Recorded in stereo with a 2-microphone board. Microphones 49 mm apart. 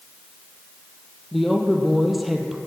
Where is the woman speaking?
Centre (ahead or behind), 3.5 m.